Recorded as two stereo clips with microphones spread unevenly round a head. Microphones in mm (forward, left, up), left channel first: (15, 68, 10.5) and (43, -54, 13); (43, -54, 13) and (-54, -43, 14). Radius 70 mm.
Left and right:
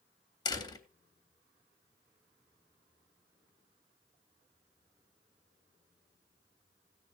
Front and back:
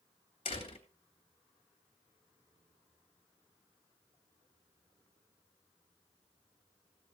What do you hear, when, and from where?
0.5 s a door slam: 45° left, 3 m